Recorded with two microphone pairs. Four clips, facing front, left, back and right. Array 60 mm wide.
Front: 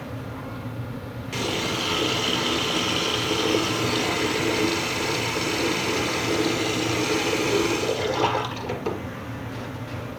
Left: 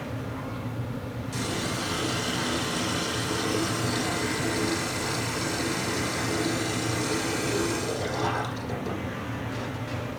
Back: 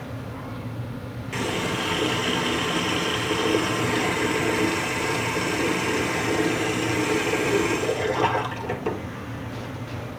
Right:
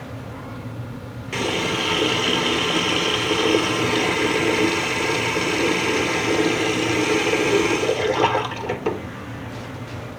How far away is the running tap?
About 1.6 m.